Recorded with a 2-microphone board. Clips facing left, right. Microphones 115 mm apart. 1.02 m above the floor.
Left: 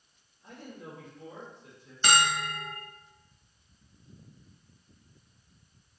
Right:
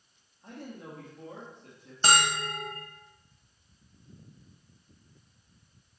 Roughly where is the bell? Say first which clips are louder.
Even; right.